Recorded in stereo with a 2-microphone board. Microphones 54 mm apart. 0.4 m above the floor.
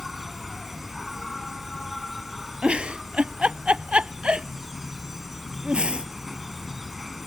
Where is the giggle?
20° right (ahead or behind).